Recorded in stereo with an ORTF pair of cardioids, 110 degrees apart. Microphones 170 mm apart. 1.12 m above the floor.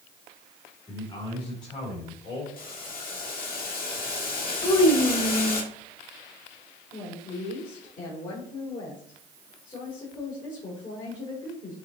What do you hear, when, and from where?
0.9 s a man speaking: 35° left, 3 m; by 2.5 s 55° left, 3 m
2.6 s boiling: 55° left, 1.5 m
4.6 s a child speaking: 25° left, 1.0 m
6.9 s a woman speaking: 60° left, 3 m